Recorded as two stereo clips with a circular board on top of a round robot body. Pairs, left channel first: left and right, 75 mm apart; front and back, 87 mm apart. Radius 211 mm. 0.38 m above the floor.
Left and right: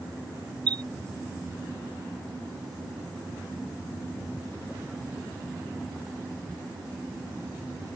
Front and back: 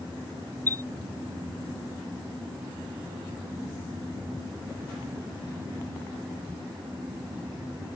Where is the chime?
65° right.